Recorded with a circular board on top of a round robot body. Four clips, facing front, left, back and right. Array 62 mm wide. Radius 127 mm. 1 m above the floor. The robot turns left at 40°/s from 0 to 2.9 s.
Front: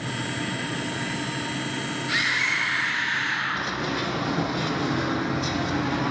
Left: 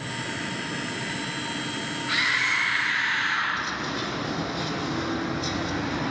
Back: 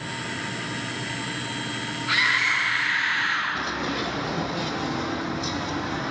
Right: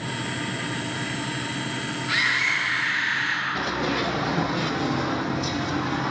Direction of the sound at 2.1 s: 175° right.